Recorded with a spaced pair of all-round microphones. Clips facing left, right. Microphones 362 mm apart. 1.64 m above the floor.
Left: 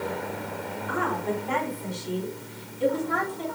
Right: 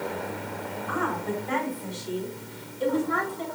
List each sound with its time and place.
0.9 s a woman speaking: 40° left (ahead or behind), 4.5 m